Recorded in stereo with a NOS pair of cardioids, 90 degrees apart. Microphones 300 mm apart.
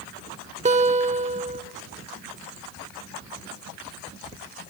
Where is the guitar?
20° right, 1.3 m.